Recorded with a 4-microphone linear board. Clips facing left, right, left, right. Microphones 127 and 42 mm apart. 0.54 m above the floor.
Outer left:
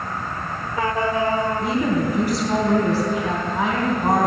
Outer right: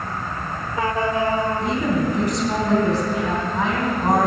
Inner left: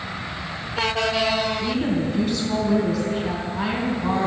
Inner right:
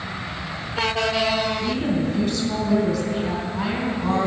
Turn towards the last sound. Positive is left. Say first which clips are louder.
# even, even
turn(degrees=5)  # may be behind; listen again after turning